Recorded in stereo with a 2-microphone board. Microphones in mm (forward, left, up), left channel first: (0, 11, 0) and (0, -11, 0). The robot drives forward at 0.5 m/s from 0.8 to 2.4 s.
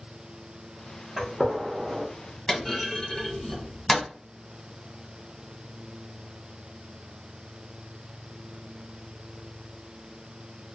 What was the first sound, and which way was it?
A gunshot, 20° right (ahead or behind).